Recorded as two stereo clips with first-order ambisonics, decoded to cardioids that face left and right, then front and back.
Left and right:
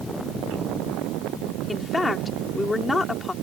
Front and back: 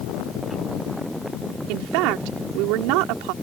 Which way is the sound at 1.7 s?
170° left.